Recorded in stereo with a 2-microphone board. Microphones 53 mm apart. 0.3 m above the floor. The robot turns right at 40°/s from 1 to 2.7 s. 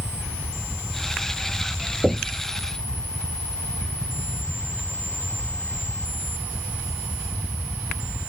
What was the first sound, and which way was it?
Knocking, 30° right (ahead or behind).